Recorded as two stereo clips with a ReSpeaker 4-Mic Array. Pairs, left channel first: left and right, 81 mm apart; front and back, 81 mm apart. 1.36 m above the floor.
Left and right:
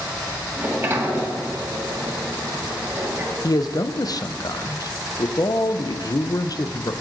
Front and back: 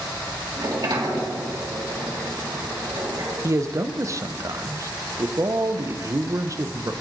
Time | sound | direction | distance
0.6 | a sliding door | 150° right | 1.8 m
3.4 | a man speaking | 130° left | 0.6 m